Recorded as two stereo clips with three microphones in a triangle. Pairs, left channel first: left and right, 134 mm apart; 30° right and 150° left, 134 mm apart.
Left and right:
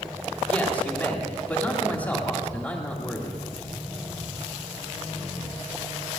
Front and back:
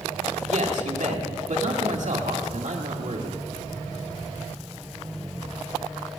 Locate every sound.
0.5 s a man speaking: 165° left, 2 m